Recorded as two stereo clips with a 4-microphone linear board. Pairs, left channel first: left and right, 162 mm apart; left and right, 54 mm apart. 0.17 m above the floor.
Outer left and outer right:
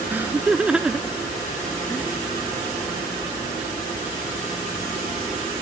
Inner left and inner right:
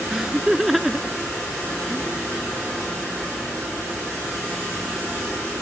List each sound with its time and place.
0.1 s laughter: 10° right (ahead or behind); by 2.1 s 10° left (ahead or behind)